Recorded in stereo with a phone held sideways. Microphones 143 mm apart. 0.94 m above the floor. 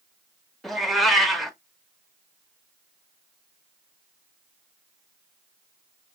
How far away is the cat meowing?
About 0.6 m.